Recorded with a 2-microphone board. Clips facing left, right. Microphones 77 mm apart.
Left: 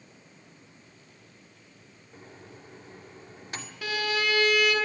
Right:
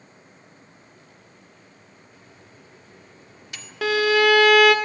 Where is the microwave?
35° left (ahead or behind), 1.7 m.